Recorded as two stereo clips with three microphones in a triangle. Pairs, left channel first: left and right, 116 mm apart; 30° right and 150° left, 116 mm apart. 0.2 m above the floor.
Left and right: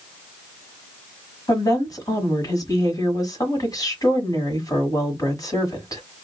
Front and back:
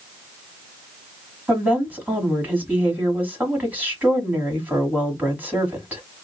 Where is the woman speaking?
90° left, 1.4 m.